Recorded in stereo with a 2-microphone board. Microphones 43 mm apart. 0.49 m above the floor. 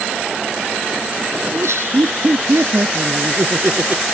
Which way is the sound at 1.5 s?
80° right.